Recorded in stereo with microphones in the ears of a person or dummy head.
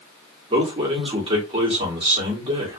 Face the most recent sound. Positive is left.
turn(degrees=-30)  # may be behind; listen again after turning